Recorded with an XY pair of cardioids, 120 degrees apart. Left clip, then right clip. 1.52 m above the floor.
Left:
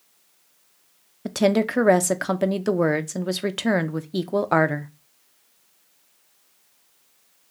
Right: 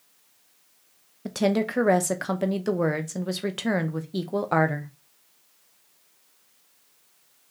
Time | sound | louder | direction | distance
1.2 | a woman speaking | left 4 dB | 20° left | 0.5 m